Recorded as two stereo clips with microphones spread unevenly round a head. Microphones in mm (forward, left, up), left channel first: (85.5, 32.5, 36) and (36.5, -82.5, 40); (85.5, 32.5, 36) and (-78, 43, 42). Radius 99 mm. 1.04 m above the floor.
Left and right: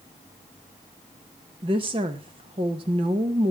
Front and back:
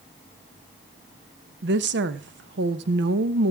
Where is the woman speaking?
170° right, 0.8 m.